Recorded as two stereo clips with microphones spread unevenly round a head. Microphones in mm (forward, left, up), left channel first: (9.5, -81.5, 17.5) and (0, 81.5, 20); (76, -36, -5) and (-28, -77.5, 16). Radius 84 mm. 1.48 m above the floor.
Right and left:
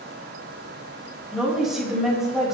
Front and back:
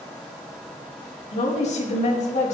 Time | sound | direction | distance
1.3 | a woman speaking | 5° left | 4 m